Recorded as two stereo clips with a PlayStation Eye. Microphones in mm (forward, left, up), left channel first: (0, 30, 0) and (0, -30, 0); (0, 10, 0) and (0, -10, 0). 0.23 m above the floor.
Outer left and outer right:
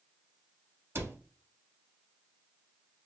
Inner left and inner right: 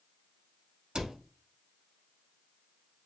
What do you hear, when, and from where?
0.9 s a cupboard door: 45° right (ahead or behind), 0.8 m